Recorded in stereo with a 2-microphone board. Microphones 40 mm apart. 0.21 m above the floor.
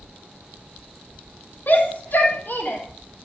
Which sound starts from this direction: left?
A shout, at 1.7 s.